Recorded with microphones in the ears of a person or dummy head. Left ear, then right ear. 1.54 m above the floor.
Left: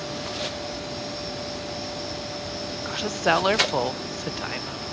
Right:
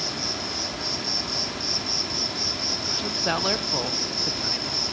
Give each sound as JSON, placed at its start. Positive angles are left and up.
{"t": 0.0, "sound": "an insect", "side_deg": -40, "distance_m": 1.9}
{"t": 2.9, "sound": "a woman speaking", "side_deg": 20, "distance_m": 0.8}